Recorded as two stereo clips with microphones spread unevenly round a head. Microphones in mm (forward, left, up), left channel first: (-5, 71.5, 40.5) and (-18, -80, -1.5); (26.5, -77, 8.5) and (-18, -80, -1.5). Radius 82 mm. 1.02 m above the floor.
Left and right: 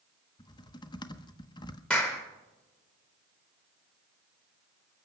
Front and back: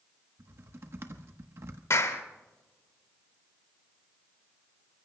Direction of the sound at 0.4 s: 155° left.